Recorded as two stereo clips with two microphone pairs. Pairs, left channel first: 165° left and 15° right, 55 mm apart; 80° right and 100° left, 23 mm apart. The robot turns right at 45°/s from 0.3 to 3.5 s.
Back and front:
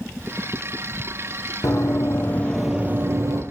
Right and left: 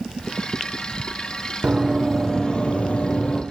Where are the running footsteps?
160° left, 1.0 m; by 3.4 s 15° right, 0.8 m.